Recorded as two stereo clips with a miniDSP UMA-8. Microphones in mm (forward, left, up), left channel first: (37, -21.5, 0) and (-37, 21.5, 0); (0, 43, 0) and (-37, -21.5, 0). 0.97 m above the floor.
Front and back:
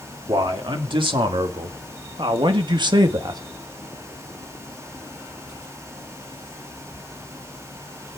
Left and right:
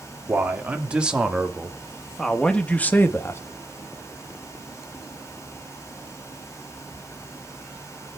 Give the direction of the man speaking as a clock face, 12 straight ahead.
6 o'clock.